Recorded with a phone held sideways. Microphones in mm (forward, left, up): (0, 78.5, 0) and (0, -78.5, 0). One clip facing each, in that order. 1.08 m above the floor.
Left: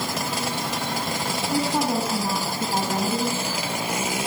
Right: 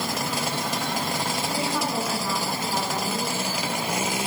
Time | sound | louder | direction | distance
1.5 | a woman speaking | left 6 dB | 40° left (ahead or behind) | 9 m